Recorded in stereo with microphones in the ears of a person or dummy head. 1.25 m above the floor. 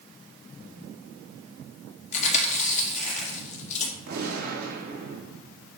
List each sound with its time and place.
2.1 s chewing: 40° left (ahead or behind), 2.0 m
4.1 s a gunshot: 55° right (ahead or behind), 2 m